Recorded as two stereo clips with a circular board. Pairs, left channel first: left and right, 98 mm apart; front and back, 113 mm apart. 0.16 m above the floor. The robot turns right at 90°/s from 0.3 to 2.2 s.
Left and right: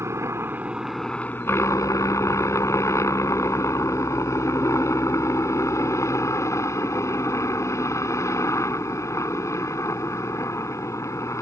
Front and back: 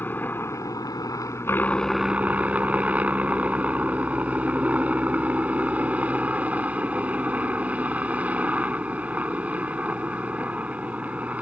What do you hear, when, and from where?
0.0 s a helicopter: 60° right; by 11.4 s 115° left